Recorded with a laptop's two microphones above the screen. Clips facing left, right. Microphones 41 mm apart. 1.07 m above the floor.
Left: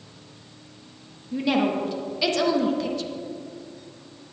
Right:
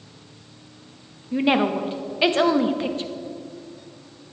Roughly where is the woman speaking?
Right.